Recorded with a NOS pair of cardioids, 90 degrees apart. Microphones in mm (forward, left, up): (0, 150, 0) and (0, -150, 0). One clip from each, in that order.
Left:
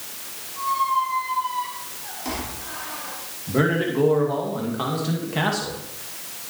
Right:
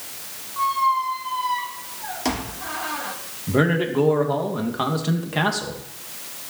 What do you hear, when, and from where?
0.6 s a squeak: 70° right, 1.8 m
3.5 s a man speaking: 40° right, 2.5 m